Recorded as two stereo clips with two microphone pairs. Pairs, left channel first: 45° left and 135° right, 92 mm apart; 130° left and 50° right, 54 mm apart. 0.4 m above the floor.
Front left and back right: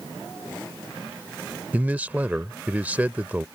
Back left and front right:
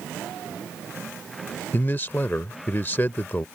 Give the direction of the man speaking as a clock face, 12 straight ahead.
7 o'clock.